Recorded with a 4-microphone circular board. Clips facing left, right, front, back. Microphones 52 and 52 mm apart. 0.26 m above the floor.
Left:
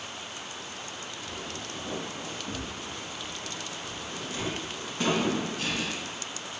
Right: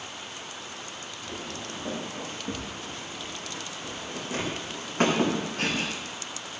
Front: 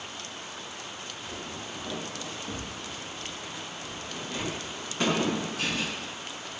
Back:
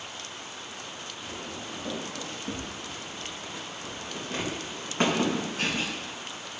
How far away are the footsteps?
About 6.5 m.